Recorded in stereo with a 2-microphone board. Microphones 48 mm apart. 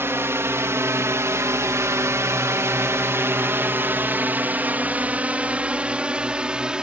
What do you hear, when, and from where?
0.0 s a drone: 60° right (ahead or behind); by 6.8 s 20° right (ahead or behind)